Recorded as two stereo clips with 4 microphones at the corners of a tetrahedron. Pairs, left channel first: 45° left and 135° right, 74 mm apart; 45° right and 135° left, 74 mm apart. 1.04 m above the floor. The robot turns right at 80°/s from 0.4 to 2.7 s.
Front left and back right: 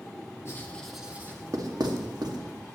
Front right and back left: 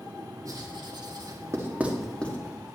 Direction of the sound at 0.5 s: 95° left.